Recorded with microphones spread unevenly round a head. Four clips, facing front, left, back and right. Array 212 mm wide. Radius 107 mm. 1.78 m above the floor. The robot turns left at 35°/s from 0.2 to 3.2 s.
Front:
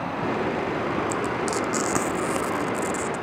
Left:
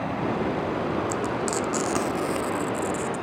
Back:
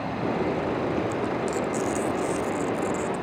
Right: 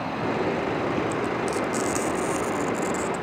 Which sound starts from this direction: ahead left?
Frying, at 1.1 s.